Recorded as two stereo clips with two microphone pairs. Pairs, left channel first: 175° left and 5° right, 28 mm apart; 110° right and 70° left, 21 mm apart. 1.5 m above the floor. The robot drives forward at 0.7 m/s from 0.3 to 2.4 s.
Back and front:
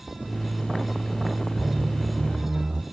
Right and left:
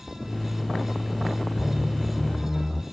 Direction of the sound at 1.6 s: 20° left.